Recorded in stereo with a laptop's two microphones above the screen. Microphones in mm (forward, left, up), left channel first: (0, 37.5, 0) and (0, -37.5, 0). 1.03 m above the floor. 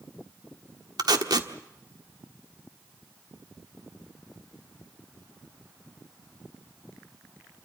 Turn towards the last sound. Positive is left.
turn(degrees=-65)  # may be behind; listen again after turning